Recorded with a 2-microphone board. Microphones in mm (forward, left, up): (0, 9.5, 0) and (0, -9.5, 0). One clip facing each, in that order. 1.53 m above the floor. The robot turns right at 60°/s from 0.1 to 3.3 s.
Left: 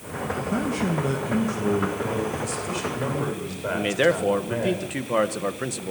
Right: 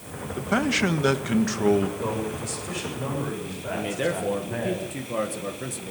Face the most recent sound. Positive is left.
turn(degrees=35)  # may be behind; listen again after turning